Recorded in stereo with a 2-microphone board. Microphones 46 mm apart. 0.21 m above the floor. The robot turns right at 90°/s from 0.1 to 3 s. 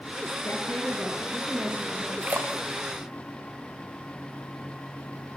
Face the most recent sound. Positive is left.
turn(degrees=-80)